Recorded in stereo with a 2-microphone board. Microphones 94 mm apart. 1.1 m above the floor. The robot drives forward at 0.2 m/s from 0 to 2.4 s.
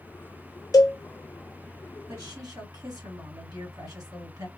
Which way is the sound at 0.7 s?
40° left (ahead or behind).